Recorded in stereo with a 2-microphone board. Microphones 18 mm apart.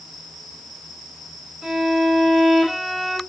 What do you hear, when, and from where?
1.6 s a violin: 30° right (ahead or behind), 1.5 m